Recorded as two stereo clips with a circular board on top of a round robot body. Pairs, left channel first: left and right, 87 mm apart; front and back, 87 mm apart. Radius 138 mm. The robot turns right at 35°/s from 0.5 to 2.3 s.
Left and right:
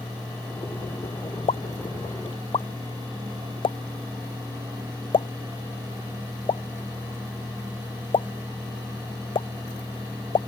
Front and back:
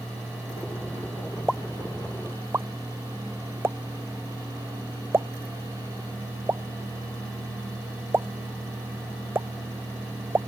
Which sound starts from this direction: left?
A pop, at 1.5 s.